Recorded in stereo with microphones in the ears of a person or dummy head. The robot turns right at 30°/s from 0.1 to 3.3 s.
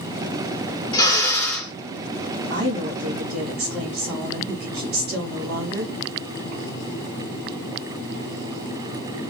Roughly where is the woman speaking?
Right.